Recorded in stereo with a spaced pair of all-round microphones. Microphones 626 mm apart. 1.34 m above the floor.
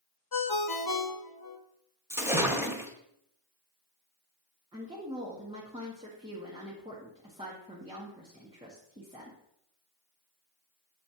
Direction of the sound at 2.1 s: 5° right (ahead or behind).